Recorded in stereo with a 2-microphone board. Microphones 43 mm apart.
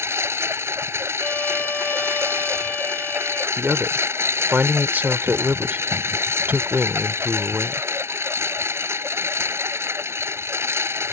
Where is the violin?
45° left (ahead or behind).